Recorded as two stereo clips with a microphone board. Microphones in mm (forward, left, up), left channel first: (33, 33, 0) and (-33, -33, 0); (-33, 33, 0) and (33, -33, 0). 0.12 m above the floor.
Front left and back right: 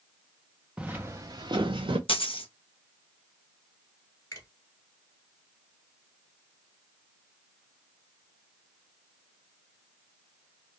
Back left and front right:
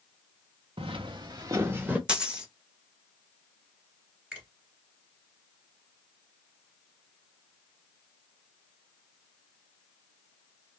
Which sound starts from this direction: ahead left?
A dropped coin, at 2.1 s.